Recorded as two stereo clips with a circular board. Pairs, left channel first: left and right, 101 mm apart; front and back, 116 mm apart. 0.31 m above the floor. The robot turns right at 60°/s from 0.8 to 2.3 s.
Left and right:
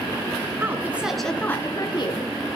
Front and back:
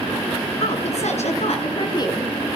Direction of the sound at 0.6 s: 20° right.